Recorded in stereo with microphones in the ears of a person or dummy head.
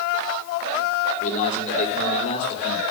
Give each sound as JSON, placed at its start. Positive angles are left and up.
{"t": 1.2, "sound": "a man speaking", "side_deg": 40, "distance_m": 6.0}